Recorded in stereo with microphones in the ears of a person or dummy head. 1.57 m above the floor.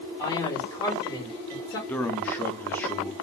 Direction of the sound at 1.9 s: 10° left (ahead or behind).